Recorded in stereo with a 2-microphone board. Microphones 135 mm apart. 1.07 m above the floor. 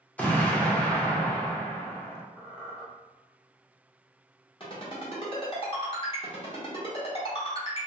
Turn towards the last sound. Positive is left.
turn(degrees=40)  # may be behind; listen again after turning